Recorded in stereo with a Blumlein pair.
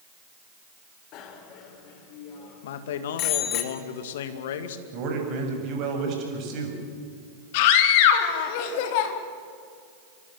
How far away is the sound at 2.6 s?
About 2.5 m.